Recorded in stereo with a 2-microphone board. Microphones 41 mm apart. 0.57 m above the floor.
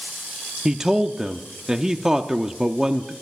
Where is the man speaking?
15° right (ahead or behind), 0.6 m.